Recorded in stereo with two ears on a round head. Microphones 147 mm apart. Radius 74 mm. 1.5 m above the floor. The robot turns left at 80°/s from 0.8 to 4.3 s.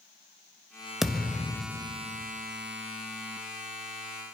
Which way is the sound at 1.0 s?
Centre (ahead or behind).